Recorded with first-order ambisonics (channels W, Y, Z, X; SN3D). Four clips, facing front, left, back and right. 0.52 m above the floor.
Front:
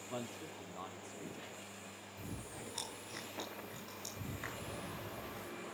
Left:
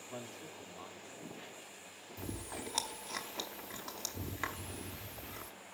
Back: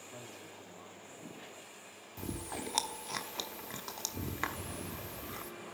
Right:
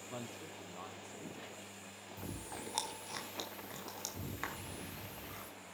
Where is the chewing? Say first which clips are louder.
Left 3 dB, back 8 dB; 175° left, 1.1 m.